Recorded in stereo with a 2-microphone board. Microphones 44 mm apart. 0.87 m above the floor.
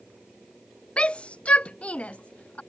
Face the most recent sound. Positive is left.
turn(degrees=35)  # may be behind; listen again after turning